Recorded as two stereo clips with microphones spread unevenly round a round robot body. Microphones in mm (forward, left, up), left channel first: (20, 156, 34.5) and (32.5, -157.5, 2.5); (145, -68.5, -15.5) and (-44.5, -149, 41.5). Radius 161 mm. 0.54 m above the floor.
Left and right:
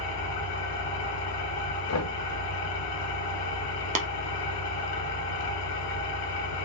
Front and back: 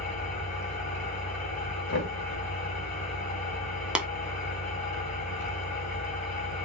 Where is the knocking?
55° left, 1.1 m.